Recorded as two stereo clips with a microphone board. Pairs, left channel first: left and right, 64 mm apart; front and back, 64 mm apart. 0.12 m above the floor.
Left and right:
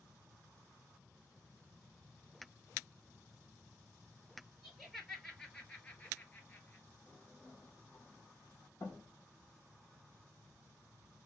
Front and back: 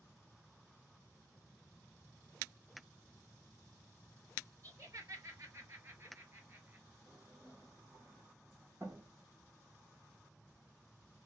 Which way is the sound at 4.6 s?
Straight behind.